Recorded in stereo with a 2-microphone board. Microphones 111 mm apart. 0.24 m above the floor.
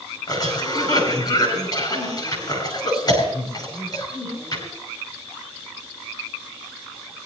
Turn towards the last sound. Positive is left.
turn(degrees=35)  # may be behind; listen again after turning